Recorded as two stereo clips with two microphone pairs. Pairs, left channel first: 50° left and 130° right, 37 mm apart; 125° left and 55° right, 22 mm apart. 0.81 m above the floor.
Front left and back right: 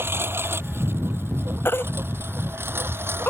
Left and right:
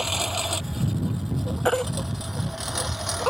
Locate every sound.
0.0 s a lawn mower: 130° right; by 3.3 s 140° right
1.6 s a baby crying: 60° left